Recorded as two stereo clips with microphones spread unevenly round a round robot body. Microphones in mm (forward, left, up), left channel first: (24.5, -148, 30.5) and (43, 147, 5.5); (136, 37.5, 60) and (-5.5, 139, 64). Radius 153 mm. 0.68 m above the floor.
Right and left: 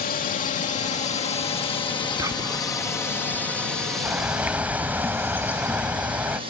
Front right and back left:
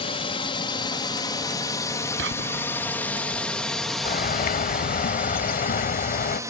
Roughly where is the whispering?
Behind.